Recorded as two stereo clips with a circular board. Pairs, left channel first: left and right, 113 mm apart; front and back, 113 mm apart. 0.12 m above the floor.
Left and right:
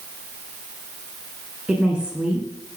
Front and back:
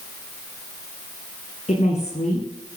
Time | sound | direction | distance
1.7 | a woman speaking | 10° right | 7 m